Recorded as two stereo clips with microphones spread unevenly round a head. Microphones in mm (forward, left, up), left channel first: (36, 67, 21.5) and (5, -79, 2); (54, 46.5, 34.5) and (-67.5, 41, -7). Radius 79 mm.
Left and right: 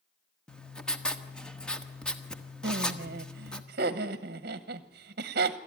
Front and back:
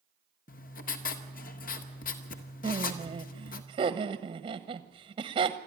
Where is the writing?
5° right, 1.4 m.